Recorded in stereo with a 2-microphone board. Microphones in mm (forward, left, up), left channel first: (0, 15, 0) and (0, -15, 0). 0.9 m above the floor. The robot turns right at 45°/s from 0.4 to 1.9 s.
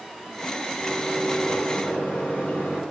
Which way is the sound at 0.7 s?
30° left.